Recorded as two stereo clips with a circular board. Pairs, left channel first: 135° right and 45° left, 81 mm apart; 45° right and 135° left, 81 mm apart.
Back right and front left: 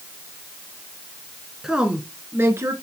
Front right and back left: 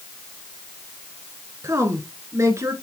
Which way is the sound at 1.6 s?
125° left.